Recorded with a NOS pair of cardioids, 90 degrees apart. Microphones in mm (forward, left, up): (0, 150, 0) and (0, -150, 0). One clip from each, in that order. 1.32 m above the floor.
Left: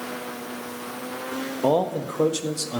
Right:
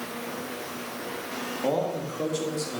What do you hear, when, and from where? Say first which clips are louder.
1.6 s a man speaking: left 6 dB; 45° left, 1.5 m; by 2.8 s 65° left, 2 m